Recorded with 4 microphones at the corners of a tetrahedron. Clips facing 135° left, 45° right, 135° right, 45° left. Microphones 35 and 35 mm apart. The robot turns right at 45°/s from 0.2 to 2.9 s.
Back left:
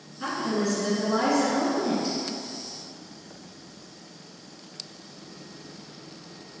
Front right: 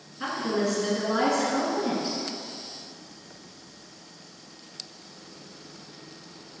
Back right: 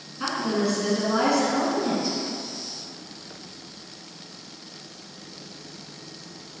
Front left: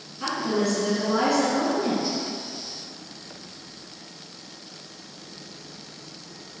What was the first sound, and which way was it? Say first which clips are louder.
A woman speaking: even, even; 100° right.